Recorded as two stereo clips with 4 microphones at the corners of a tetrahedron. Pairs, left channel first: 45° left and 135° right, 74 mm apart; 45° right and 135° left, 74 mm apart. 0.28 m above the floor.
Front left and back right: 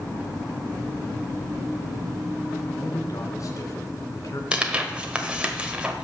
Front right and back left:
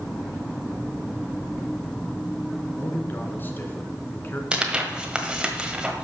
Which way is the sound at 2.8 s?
15° left.